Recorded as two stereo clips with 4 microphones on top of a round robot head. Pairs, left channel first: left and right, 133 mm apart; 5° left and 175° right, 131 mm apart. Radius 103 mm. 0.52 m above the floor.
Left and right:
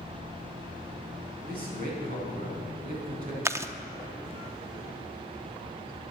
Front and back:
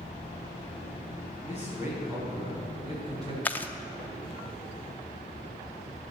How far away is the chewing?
About 0.9 m.